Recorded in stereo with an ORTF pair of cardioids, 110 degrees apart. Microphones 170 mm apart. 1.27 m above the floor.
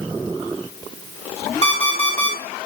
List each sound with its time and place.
1.6 s an alarm clock: 30° left, 1.5 m